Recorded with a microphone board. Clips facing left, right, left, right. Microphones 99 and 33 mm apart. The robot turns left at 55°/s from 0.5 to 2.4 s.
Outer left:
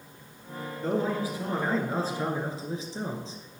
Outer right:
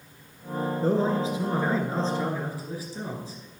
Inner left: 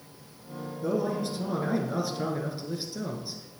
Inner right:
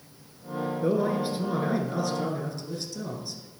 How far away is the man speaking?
About 1.7 m.